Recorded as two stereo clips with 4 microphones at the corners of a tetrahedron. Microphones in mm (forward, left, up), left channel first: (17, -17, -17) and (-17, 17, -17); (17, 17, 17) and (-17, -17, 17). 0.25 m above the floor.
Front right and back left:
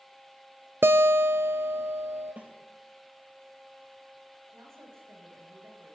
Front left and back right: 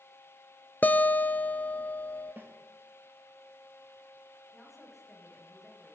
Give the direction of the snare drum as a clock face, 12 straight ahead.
6 o'clock.